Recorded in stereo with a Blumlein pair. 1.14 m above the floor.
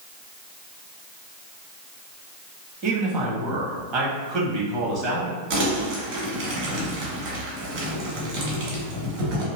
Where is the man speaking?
40° right, 1.1 m.